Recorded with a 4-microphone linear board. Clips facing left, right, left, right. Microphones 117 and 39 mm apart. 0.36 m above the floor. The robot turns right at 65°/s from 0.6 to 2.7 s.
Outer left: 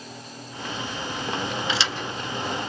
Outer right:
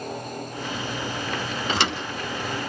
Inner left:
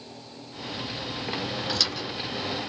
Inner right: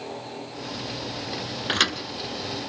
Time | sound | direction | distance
1.7 | a thud | 50° right (ahead or behind) | 1.8 m